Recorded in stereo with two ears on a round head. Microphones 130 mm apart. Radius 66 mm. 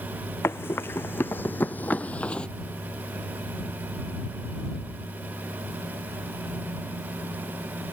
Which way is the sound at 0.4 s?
15° left (ahead or behind).